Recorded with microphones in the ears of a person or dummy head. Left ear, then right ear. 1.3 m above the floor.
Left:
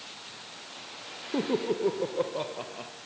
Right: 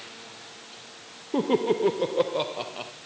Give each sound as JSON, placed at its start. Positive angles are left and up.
{"t": 1.3, "sound": "laughter", "side_deg": -25, "distance_m": 0.5}